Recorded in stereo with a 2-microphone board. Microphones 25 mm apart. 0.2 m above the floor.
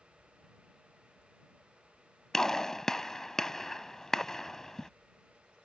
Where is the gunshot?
20° left (ahead or behind).